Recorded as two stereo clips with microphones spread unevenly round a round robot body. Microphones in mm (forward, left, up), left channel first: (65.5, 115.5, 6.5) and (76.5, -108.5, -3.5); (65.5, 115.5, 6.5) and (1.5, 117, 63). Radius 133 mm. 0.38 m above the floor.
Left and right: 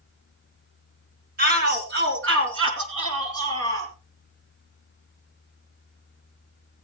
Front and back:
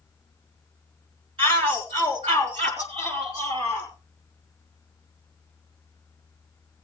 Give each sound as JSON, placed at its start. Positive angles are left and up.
{"t": 1.4, "sound": "a shout", "azimuth_deg": -145, "distance_m": 3.5}